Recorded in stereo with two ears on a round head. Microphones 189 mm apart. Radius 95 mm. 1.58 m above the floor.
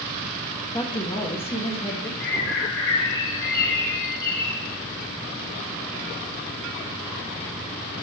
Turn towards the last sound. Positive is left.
turn(degrees=55)  # may be behind; listen again after turning